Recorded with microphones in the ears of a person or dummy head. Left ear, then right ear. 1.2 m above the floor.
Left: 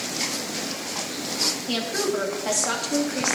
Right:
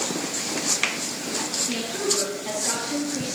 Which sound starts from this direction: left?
A woman speaking, at 1.7 s.